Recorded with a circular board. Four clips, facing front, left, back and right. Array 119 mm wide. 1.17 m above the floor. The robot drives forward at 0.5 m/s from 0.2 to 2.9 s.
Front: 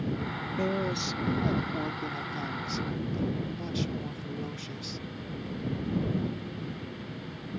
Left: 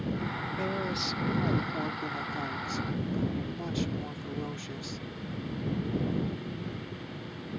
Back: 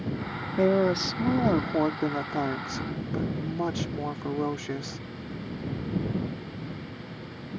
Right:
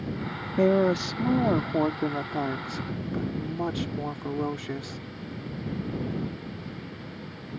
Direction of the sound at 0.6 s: 125° right.